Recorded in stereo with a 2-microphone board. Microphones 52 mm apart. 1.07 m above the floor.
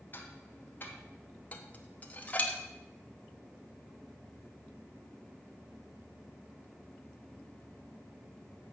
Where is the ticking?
40° left (ahead or behind), 1.3 m.